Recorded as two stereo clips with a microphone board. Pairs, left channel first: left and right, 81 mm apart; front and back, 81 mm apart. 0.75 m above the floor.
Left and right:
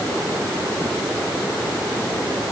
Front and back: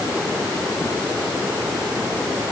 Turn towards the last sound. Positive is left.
No sound to turn to.